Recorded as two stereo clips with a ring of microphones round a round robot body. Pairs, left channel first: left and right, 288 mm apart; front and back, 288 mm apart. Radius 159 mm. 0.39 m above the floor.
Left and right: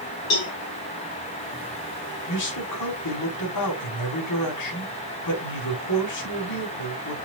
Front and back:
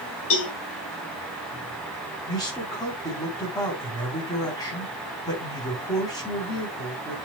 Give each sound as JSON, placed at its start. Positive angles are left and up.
{"t": 0.3, "sound": "a cowbell", "azimuth_deg": 50, "distance_m": 4.5}
{"t": 2.3, "sound": "a man speaking", "azimuth_deg": 80, "distance_m": 4.5}